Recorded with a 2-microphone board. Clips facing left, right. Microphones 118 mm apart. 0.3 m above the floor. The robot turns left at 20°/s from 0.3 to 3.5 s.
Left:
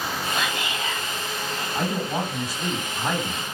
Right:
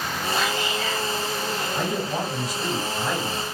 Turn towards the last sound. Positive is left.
turn(degrees=125)